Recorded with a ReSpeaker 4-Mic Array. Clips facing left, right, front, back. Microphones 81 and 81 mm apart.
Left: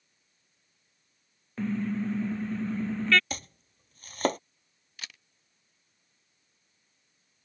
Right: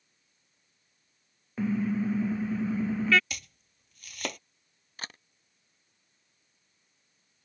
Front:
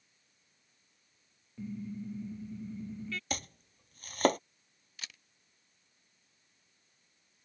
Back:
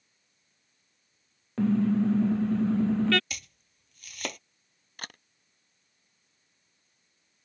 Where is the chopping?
45° left.